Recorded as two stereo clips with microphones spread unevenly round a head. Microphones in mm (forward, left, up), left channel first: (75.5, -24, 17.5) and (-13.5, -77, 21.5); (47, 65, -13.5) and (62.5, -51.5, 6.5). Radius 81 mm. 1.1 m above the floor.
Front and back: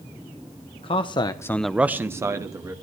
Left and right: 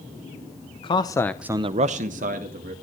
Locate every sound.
0.8 s a man speaking: 70° left, 1.2 m; by 2.8 s 90° right, 1.9 m